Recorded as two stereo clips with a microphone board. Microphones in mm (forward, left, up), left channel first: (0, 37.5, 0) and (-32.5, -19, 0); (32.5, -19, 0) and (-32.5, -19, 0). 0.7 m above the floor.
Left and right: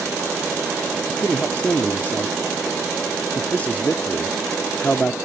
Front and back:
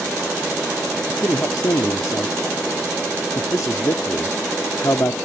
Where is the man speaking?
Straight ahead.